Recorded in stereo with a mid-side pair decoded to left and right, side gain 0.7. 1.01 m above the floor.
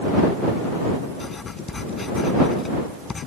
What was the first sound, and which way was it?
Writing, 20° left.